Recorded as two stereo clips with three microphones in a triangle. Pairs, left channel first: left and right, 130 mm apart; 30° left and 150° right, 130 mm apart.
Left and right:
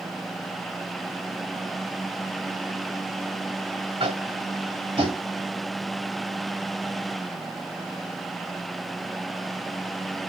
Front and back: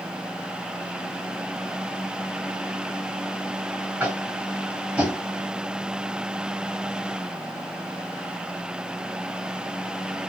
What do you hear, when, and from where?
4.0 s tapping: 80° right, 1.6 m